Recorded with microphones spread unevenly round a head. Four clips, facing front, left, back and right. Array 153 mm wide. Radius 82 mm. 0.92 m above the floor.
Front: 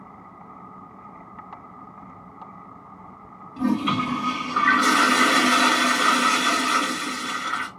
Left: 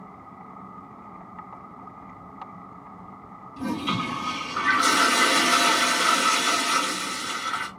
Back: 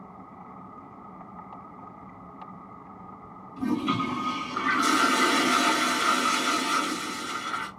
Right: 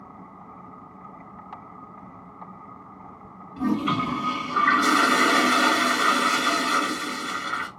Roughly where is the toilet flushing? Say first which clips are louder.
Right 4 dB, front 4 dB; ahead.